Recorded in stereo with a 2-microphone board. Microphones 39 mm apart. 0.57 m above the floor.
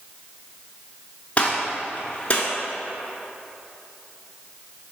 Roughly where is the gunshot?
Left.